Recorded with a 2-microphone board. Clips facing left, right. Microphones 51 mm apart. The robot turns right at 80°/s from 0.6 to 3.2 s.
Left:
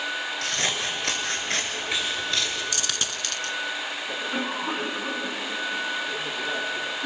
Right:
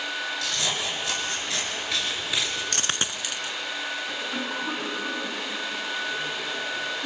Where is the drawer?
No drawer in this recording.